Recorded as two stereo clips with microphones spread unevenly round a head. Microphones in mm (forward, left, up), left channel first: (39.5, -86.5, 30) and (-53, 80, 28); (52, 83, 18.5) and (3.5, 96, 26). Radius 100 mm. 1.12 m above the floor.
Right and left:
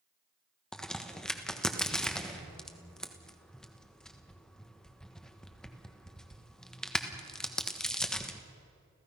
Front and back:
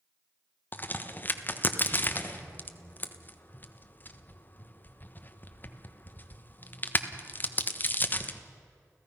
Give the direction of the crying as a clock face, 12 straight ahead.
I don't hear crying.